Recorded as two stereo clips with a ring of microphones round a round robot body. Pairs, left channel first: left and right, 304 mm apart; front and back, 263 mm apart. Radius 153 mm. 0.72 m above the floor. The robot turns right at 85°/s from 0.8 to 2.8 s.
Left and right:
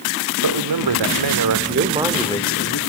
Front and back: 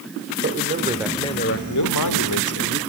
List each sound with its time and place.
0.4 s a man speaking: 115° right, 1.9 m; by 2.8 s 55° left, 1.9 m